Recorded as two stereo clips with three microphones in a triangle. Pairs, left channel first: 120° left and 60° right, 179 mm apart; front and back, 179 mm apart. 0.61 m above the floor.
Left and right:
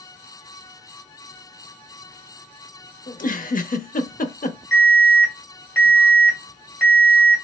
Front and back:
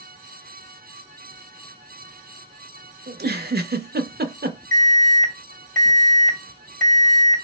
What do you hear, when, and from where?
3.1 s a giggle: 160° left, 0.5 m
4.7 s an alarm: 140° left, 2 m